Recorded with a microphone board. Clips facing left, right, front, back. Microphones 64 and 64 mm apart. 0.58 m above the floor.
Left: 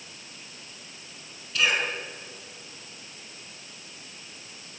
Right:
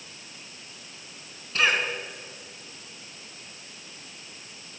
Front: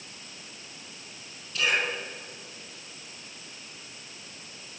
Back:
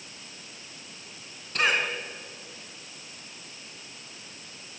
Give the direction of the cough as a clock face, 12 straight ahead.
5 o'clock.